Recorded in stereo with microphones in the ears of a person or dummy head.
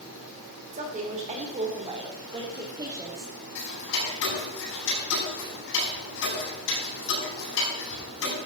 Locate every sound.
0.7 s a woman speaking: 40° right (ahead or behind), 3.5 m; by 3.5 s 15° right (ahead or behind), 2.5 m
3.5 s ticking: 70° left (ahead or behind), 9.5 m